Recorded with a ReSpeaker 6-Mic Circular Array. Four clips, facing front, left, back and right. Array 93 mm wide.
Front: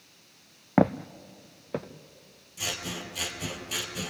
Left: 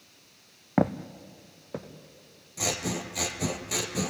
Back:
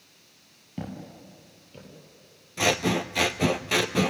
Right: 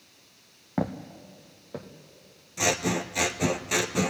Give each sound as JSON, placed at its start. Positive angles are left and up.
{"t": 0.8, "sound": "footsteps", "azimuth_deg": 20, "distance_m": 0.8}
{"t": 2.6, "sound": "scissors", "azimuth_deg": -160, "distance_m": 0.9}